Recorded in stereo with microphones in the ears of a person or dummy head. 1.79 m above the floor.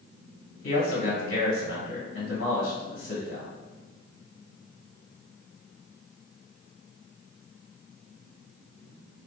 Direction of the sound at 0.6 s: 80° left.